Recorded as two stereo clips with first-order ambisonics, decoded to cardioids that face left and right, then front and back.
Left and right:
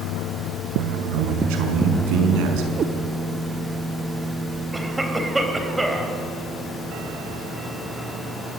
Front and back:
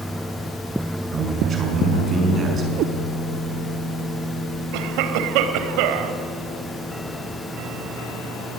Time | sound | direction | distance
1.1 | a man speaking | 115° right | 5.5 m
2.8 | a cat meowing | 150° right | 1.5 m
4.7 | a cough | 175° right | 3.5 m